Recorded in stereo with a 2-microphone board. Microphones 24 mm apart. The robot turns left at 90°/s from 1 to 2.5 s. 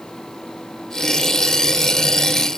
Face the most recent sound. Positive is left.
No sound to turn to.